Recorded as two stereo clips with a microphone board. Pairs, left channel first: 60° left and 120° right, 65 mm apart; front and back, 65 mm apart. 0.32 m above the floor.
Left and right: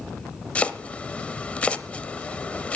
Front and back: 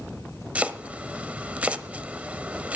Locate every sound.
0.6 s chopping: 125° left, 0.7 m